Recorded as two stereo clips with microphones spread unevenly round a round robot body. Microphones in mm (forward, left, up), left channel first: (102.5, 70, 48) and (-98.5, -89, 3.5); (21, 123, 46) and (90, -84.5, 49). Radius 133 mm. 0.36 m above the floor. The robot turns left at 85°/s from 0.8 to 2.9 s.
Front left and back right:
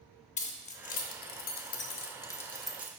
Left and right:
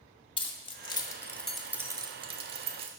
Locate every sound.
0.4 s keys jangling: 85° left, 0.5 m; by 2.9 s 95° right, 0.5 m